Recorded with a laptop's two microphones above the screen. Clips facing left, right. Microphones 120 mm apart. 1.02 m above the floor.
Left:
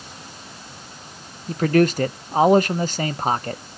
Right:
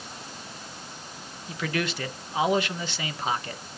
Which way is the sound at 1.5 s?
45° left (ahead or behind).